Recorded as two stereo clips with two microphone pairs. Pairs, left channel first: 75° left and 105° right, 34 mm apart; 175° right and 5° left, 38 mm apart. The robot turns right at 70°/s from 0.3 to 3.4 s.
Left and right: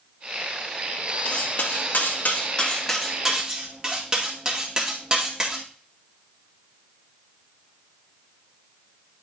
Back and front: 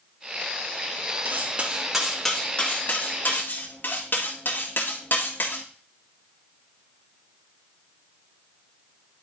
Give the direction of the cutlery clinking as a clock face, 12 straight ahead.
11 o'clock.